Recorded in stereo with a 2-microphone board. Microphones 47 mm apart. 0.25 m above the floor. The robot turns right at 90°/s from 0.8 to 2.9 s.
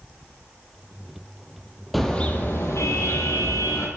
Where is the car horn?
Straight ahead, 3.5 m; by 3.9 s 85° left, 3.5 m.